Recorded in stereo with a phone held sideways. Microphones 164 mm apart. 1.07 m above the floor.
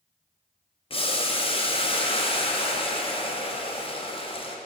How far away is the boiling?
About 0.5 m.